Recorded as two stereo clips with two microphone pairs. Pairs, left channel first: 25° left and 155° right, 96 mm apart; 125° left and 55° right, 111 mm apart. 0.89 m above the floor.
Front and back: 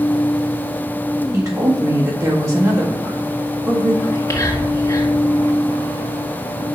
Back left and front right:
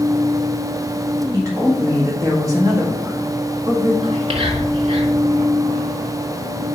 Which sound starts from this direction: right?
A woman speaking, at 1.3 s.